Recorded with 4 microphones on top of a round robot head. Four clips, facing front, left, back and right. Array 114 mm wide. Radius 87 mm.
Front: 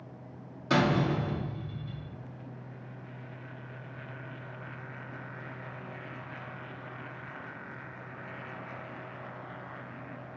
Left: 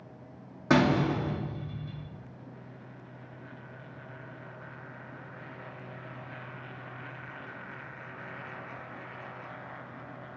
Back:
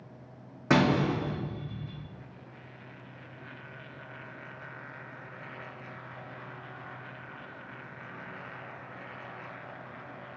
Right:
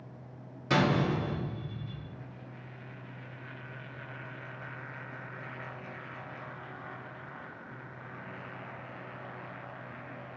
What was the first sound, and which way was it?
A door slam, 135° left.